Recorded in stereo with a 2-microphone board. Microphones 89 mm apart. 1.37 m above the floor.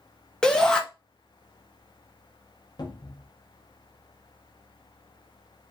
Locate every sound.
0.4 s a shout: 10° left (ahead or behind), 0.7 m
2.8 s a cupboard door: 50° left (ahead or behind), 0.6 m